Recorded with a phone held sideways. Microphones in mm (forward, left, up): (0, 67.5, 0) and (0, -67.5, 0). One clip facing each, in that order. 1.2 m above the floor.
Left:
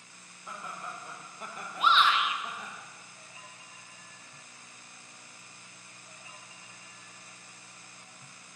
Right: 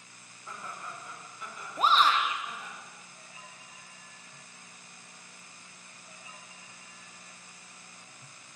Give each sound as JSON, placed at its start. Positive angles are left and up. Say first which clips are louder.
{"t": 0.5, "sound": "laughter", "louder": "left 1 dB", "side_deg": 10, "distance_m": 2.0}
{"t": 1.8, "sound": "a shout", "louder": "right 1 dB", "side_deg": -40, "distance_m": 0.8}